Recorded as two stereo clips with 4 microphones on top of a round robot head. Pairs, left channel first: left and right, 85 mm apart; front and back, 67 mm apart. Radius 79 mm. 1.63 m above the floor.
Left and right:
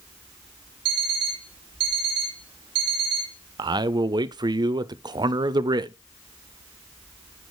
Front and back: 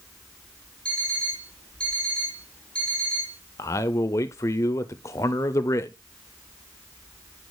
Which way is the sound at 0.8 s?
80° right.